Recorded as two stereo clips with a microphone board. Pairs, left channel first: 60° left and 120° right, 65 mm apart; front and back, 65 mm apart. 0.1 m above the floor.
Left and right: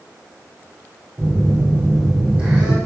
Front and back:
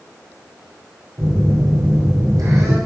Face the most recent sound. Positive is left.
turn(degrees=165)